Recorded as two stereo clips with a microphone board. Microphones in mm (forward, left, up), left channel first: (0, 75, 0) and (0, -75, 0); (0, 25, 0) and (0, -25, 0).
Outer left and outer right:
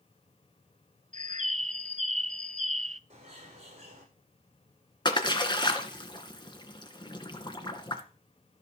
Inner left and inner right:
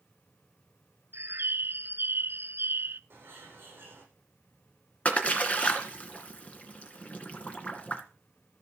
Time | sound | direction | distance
1.1 | a bird | 55° right (ahead or behind) | 0.5 m
3.1 | a bird | 45° right (ahead or behind) | 7.5 m
5.0 | a splash | 30° left (ahead or behind) | 2 m